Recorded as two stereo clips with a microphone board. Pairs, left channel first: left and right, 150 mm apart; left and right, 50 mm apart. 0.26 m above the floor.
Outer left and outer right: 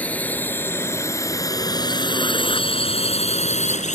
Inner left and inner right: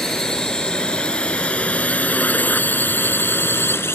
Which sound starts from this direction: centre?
A drone, at 0.0 s.